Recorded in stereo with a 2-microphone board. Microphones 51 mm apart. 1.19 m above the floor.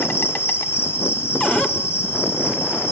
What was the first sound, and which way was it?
An insect, 45° left (ahead or behind).